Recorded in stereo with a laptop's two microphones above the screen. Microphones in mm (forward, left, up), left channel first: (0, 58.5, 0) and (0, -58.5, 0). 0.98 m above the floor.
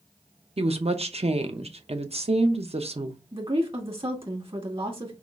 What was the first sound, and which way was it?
A woman speaking, 55° right (ahead or behind).